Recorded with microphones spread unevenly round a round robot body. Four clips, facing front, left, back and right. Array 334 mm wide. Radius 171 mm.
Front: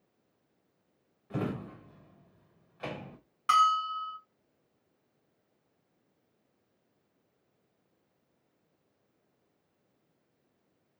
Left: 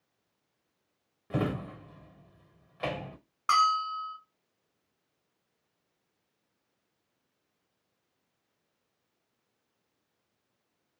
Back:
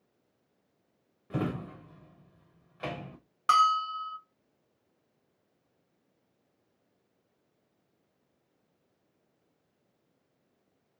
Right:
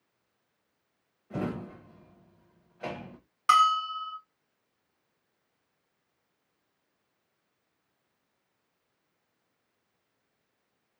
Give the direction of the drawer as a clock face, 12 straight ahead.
8 o'clock.